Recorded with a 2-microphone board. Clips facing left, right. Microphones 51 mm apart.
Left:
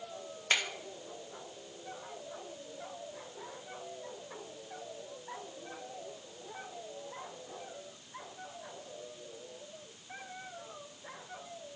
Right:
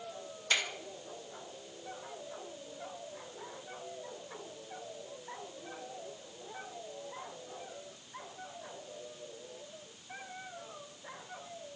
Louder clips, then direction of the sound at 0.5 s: Left 1 dB; 40° left (ahead or behind).